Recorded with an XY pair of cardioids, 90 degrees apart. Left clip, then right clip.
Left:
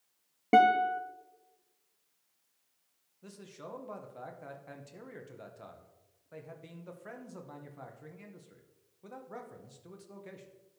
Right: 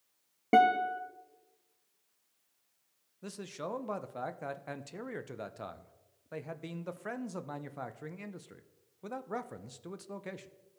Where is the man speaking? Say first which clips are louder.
Right 7 dB; 60° right, 0.6 m.